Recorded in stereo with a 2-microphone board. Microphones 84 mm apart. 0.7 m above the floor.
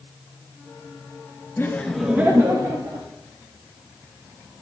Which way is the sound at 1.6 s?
30° left (ahead or behind).